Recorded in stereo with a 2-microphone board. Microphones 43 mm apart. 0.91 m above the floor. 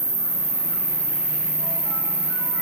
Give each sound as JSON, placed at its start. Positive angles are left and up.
{"t": 0.0, "sound": "an insect", "side_deg": 10, "distance_m": 0.9}